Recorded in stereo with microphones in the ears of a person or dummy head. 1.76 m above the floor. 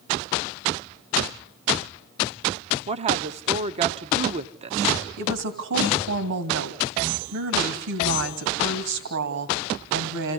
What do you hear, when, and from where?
2.9 s a woman speaking: 30° right (ahead or behind), 0.8 m
5.2 s a woman speaking: 70° right (ahead or behind), 2.5 m